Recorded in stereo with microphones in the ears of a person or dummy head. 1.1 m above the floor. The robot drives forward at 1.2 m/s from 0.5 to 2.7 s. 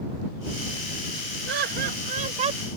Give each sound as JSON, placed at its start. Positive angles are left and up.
{"t": 1.5, "sound": "laughter", "side_deg": -60}